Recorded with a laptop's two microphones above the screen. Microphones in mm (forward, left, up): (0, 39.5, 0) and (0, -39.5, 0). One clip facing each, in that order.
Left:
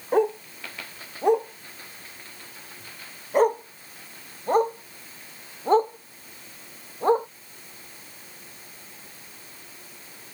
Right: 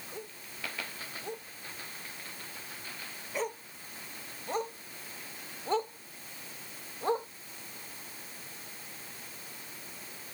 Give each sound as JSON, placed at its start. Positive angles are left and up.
{"t": 0.1, "sound": "a dog barking", "side_deg": 75}